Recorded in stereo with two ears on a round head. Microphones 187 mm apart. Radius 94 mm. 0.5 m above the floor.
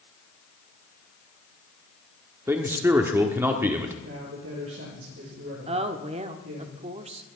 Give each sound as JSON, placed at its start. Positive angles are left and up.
{"t": 2.5, "sound": "a man speaking", "side_deg": -10, "distance_m": 1.4}
{"t": 4.0, "sound": "a man speaking", "side_deg": -65, "distance_m": 9.5}
{"t": 5.7, "sound": "a woman speaking", "side_deg": -30, "distance_m": 1.1}